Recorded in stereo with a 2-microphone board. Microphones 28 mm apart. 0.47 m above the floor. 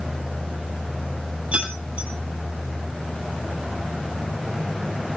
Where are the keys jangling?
55° right (ahead or behind), 7.5 m.